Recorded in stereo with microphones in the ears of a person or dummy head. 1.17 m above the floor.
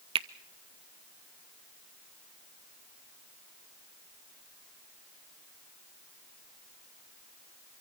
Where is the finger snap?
30° right (ahead or behind), 0.6 m.